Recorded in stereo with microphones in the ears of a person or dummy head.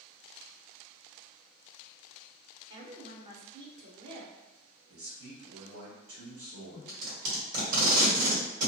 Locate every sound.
2.7 s a woman speaking: 35° right (ahead or behind), 0.7 m
4.9 s a man speaking: 75° right (ahead or behind), 0.8 m
6.9 s tape being pulled: 60° right (ahead or behind), 1.4 m